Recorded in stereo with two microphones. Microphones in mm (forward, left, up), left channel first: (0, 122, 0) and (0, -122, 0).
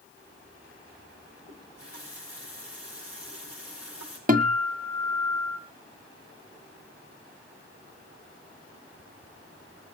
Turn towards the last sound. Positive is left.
turn(degrees=-35)  # may be behind; listen again after turning